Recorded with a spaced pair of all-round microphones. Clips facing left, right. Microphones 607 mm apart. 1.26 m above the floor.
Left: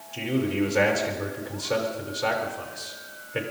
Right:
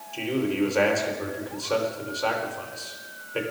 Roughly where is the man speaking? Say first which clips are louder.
Even; left.